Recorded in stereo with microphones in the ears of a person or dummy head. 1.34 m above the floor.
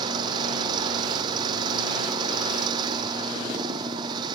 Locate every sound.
0.0 s an engine running: 30° right (ahead or behind)